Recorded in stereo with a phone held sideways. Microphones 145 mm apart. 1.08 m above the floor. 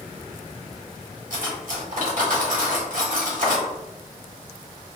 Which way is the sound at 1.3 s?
65° right (ahead or behind).